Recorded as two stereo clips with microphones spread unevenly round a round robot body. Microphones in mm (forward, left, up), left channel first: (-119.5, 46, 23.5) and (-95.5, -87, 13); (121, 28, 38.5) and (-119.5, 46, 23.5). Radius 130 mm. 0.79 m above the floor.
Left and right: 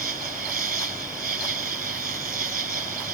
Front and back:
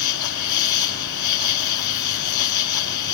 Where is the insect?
25° right.